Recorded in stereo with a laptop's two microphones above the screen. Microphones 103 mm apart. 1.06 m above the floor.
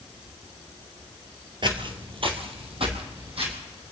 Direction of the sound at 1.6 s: 45° right (ahead or behind).